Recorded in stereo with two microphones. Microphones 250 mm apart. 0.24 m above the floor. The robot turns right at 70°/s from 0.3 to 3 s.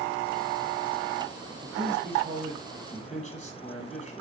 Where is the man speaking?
70° right, 6 m; by 4.2 s 25° left, 6 m.